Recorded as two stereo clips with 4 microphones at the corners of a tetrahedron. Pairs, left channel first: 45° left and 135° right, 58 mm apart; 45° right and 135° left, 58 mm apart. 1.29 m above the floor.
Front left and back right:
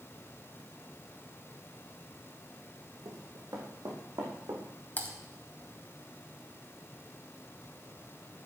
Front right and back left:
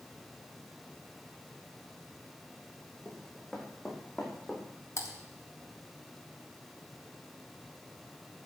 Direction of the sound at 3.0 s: 135° right.